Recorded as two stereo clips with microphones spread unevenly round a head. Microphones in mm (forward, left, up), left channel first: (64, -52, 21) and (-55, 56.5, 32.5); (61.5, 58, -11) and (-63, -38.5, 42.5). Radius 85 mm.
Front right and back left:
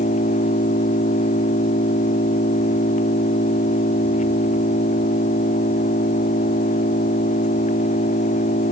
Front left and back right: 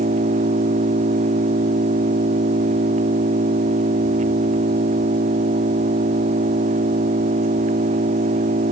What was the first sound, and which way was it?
An engine running, 90° right.